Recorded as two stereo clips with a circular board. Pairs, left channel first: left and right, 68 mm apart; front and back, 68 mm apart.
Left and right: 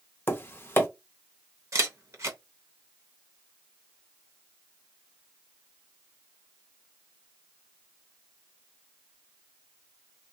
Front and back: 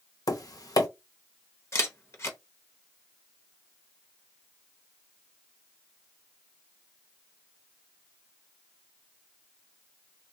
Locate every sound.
0.3 s tapping: 30° left, 0.6 m
1.7 s a camera shutter: 45° right, 0.7 m